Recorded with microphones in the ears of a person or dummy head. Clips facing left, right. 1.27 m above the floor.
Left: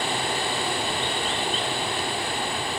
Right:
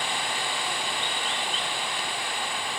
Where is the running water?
30° left (ahead or behind), 1.0 m.